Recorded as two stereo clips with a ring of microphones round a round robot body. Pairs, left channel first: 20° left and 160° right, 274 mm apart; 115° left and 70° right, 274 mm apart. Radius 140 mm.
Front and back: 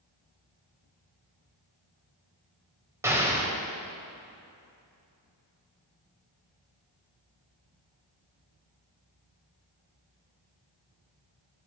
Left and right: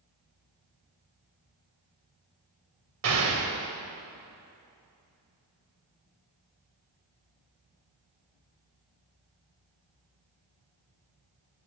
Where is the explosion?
80° right, 1.9 m.